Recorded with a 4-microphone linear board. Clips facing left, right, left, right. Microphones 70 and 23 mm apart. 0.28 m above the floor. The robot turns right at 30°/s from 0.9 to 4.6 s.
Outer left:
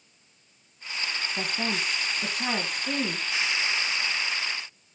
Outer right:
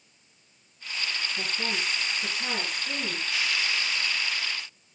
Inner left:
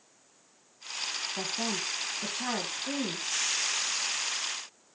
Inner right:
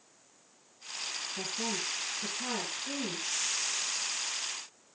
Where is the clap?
No clap in this recording.